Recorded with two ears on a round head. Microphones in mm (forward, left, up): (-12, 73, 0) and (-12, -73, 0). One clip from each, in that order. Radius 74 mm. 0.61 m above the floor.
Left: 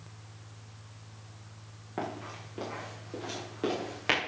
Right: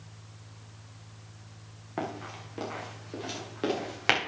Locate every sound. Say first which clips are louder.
2.0 s running footsteps: right 1 dB; 25° right (ahead or behind), 4.5 m; by 4.2 s 40° right (ahead or behind), 5 m